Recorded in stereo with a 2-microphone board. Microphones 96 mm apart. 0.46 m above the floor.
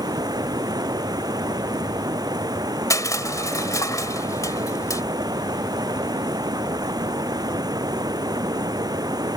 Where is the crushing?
35° left (ahead or behind).